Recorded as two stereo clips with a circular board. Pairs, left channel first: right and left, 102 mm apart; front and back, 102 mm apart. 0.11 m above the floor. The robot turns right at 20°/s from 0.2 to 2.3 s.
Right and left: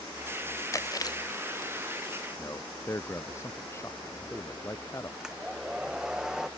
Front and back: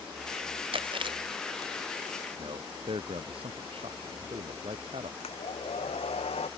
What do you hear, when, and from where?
0.7 s chewing: 150° right; by 1.7 s 130° right
2.4 s a man speaking: 155° right
5.2 s a hair dryer: 5° left